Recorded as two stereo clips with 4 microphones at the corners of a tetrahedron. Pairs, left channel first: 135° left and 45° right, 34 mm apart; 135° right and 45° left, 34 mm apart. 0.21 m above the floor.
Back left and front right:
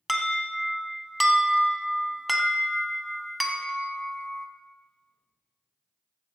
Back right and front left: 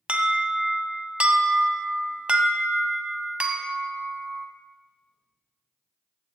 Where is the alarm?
40° left, 1.1 m.